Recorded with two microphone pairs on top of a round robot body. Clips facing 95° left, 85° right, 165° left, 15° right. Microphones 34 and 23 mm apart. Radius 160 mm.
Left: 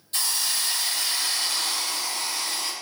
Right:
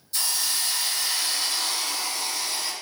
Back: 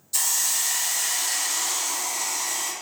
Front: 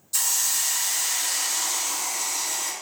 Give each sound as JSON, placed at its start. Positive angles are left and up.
{"t": 0.1, "sound": "a hiss", "azimuth_deg": 95, "distance_m": 1.3}